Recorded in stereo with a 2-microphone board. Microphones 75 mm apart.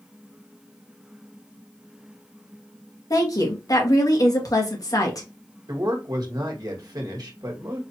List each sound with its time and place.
3.1 s a woman speaking: 50° left (ahead or behind), 1.4 m
5.7 s a man speaking: 55° right (ahead or behind), 1.5 m